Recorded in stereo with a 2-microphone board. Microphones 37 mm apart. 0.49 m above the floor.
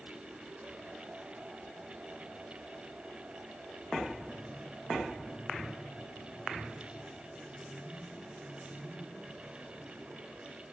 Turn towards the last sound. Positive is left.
No sound to turn to.